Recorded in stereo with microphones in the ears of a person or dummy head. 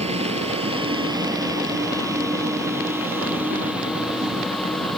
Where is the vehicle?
35° right (ahead or behind); by 5.0 s centre (ahead or behind).